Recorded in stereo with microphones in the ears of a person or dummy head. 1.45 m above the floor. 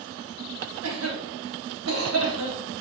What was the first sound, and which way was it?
A cough, 85° right.